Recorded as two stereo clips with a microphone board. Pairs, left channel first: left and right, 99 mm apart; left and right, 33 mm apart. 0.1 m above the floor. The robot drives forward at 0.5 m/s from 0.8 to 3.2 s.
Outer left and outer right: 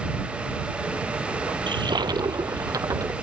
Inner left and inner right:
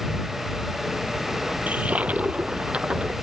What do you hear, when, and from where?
1.7 s a toilet flushing: 50° right (ahead or behind); by 3.1 s 30° right (ahead or behind)